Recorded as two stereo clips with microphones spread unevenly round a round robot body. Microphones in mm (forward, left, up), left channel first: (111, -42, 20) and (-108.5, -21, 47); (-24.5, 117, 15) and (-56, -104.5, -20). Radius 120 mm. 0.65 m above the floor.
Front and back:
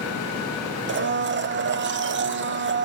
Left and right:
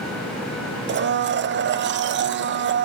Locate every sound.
0.9 s a blender: 140° right, 0.6 m